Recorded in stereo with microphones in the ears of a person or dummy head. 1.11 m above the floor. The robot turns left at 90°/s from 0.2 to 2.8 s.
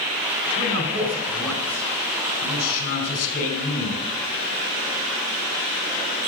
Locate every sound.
0.6 s a man speaking: 110° right, 4.5 m; by 4.0 s 45° left, 4.5 m